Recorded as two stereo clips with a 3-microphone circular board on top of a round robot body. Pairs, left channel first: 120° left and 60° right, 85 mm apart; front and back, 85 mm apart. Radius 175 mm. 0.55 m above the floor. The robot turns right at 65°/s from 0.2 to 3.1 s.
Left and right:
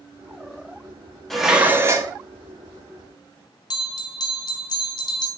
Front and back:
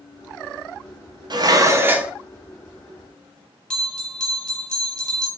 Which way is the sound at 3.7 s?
80° left.